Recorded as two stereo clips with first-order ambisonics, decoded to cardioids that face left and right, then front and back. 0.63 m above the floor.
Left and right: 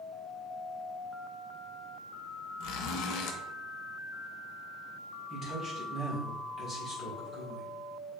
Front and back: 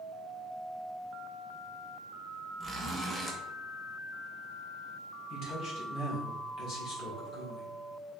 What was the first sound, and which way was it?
A zipper, 95° left.